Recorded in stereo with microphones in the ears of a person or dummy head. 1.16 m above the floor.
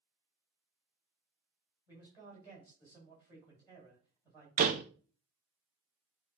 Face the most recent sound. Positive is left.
turn(degrees=-40)  # may be behind; listen again after turning